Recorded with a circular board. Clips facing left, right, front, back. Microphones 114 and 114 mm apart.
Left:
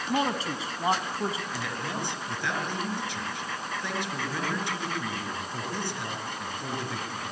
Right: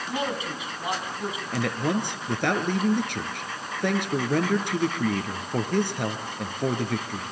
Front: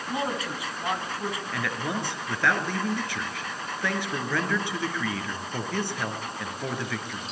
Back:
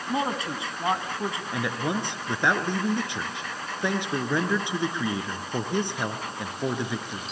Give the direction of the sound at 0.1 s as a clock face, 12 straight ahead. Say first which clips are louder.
Left 2 dB, back 2 dB; 8 o'clock.